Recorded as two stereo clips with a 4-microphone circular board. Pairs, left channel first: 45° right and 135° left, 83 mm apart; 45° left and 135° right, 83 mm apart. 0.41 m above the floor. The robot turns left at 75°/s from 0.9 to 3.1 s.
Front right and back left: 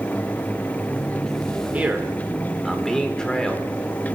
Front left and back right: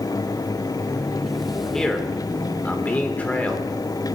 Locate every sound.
1.7 s a man speaking: 120° left, 1.3 m; by 3.7 s 15° left, 1.3 m